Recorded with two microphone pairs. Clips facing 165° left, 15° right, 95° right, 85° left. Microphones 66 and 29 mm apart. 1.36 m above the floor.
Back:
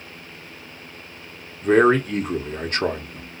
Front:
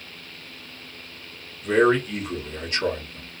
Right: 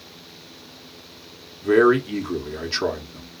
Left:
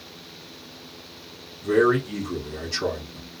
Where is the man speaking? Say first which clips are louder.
Back 3 dB, right 3 dB; 150° right, 0.9 m.